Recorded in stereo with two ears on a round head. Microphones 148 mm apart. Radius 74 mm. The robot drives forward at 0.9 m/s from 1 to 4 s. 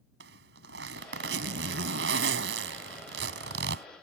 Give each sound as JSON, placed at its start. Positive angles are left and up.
{"t": 0.2, "sound": "a zipper", "side_deg": -75}